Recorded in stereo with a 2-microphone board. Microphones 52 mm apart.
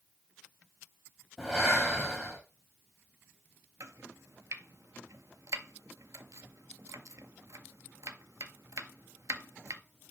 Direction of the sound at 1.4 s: Centre (ahead or behind).